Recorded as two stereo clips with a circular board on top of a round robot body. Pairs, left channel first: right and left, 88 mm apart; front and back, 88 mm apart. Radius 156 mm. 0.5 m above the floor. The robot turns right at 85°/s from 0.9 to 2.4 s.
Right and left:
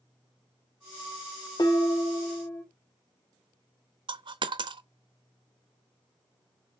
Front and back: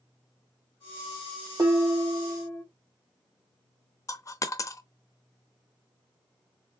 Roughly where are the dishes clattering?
Behind right.